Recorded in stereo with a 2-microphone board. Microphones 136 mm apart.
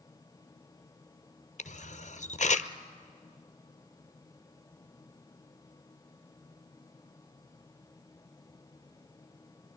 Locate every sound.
1.6 s a camera shutter: 65° left (ahead or behind), 0.8 m